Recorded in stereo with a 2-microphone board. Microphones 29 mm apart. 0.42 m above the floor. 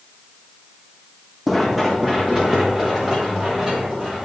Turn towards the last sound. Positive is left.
turn(degrees=-20)  # may be behind; listen again after turning